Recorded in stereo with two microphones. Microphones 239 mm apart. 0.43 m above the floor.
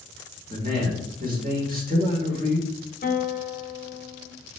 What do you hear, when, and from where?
0.5 s a man speaking: 35° right (ahead or behind), 1.1 m
3.0 s a guitar: 35° left (ahead or behind), 0.6 m